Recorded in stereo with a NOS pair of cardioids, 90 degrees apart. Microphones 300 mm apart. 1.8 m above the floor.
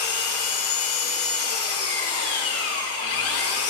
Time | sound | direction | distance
0.0 | an engine running | 55° left | 2.5 m